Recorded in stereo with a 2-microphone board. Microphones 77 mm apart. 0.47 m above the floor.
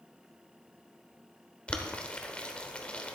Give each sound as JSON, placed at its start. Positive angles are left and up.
{"t": 1.7, "sound": "boiling", "side_deg": 15, "distance_m": 0.8}